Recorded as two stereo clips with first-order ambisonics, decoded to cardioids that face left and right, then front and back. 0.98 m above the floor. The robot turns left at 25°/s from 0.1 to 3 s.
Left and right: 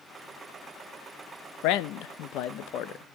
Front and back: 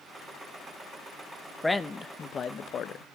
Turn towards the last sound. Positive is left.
turn(degrees=50)